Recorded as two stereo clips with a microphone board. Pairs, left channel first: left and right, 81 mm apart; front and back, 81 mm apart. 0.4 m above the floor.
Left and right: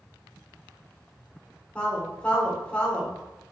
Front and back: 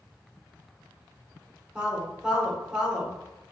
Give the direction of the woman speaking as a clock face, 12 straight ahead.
8 o'clock.